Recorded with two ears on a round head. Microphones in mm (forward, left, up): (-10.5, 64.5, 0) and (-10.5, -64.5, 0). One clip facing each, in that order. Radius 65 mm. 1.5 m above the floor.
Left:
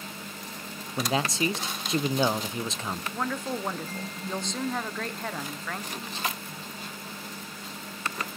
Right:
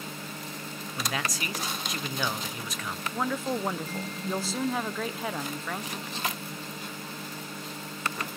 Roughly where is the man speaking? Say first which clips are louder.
Left 7 dB; left.